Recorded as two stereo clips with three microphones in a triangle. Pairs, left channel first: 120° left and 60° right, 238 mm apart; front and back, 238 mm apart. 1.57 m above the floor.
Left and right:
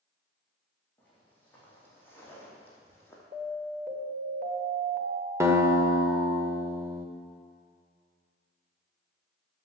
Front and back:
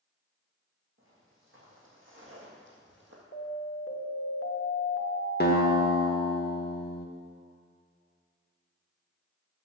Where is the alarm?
15° right, 1.4 m.